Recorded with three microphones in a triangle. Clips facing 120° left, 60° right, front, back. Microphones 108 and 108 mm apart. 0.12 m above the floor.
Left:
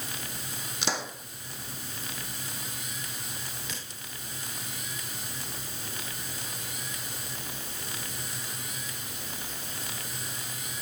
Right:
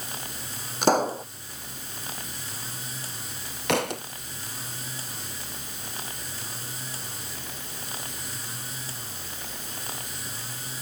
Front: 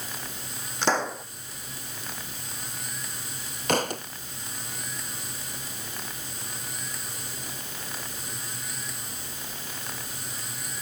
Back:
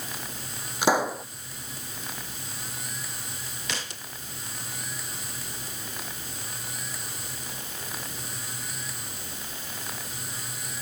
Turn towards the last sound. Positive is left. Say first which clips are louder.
# right 18 dB, front 13 dB
turn(degrees=-40)